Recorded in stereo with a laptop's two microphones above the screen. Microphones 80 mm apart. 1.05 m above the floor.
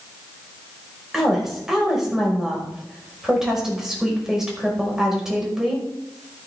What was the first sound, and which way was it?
A woman speaking, 5° right (ahead or behind).